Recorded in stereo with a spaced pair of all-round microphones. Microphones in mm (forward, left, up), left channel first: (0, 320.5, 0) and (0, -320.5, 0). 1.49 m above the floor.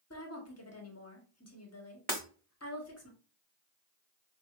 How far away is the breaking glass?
About 1.1 m.